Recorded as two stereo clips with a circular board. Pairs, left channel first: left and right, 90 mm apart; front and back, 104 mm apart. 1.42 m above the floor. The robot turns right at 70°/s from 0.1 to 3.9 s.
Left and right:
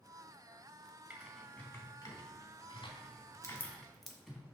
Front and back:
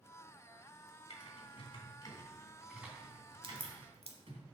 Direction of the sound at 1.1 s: 20° right.